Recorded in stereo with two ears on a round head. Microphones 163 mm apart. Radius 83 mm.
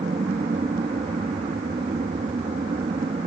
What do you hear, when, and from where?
0.0 s an aircraft: 30° right (ahead or behind)